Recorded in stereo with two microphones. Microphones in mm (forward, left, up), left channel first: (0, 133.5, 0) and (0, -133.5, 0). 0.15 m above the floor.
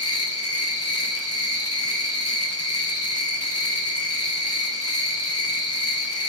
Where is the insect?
70° left (ahead or behind), 3 m.